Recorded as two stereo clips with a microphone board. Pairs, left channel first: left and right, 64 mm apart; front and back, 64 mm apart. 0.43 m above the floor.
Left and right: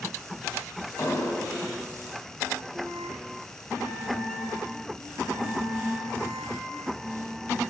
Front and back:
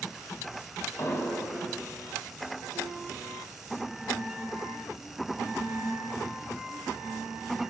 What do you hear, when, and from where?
1.0 s an explosion: 45° left, 0.7 m